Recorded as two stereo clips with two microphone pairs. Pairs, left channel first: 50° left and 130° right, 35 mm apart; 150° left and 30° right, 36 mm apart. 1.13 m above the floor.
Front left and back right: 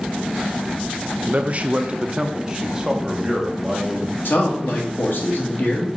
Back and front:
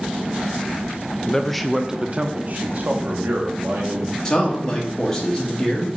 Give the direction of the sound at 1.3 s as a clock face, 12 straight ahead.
5 o'clock.